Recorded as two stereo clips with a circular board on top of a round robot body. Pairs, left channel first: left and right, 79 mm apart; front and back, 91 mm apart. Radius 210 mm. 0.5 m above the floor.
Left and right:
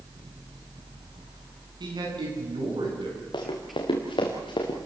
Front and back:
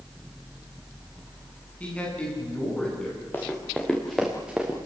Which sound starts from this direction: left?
Running footsteps, at 3.3 s.